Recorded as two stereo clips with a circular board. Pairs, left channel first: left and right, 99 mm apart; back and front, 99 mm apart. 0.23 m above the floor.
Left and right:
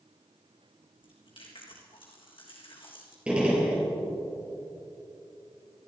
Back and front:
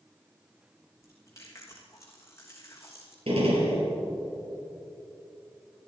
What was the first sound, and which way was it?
Chewing, 120° left.